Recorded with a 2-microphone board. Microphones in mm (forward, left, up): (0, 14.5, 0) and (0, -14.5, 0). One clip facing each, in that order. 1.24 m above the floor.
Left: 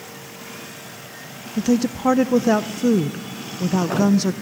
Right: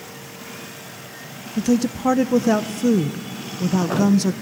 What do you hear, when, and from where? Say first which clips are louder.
1.6 s a woman speaking: even; 5° left (ahead or behind), 0.5 m